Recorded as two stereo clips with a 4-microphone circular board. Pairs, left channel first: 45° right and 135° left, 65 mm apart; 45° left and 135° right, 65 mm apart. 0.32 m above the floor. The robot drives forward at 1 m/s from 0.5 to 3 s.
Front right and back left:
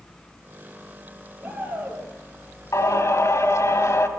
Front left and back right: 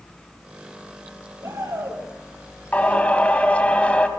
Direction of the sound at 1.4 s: 150° right.